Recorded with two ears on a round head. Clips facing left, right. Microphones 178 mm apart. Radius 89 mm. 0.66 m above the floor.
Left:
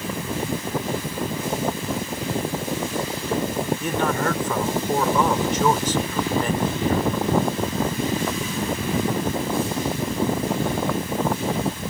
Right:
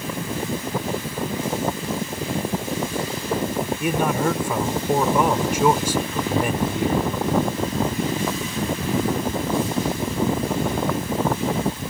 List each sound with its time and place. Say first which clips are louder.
3.8 s a man speaking: right 4 dB; 10° right (ahead or behind)